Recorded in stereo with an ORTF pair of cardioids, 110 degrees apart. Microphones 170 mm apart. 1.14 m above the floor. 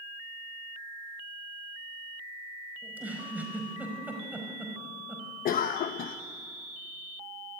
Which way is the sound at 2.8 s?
10° right.